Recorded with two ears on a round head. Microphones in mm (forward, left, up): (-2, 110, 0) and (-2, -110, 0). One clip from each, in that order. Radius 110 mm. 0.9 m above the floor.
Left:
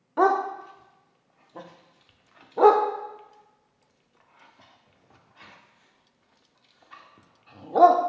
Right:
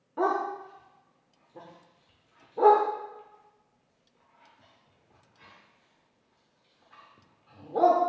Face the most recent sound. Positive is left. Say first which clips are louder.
# left 6 dB
turn(degrees=40)  # may be behind; listen again after turning